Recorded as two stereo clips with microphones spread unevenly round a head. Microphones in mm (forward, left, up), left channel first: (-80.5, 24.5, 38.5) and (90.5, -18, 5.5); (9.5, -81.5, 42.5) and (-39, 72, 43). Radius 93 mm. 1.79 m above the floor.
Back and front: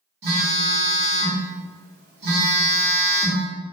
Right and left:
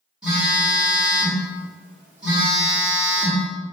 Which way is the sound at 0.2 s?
20° left.